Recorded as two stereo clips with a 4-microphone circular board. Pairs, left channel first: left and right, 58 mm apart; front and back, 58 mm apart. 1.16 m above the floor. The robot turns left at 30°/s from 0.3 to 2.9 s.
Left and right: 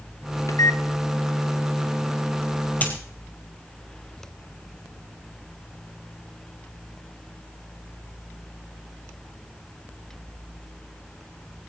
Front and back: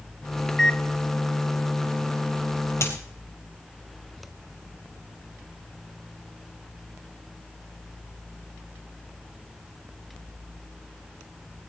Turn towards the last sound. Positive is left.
turn(degrees=30)